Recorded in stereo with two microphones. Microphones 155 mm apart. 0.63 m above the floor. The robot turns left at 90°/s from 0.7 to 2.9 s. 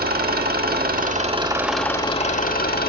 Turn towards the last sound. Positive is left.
turn(degrees=75)